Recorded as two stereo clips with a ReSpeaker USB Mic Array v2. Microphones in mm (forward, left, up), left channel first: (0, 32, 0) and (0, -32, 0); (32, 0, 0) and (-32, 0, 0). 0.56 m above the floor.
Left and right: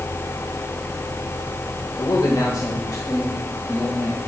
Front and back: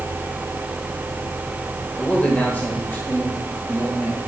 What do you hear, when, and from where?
2.0 s a man speaking: 75° left, 1.8 m; by 4.2 s 45° left, 3.5 m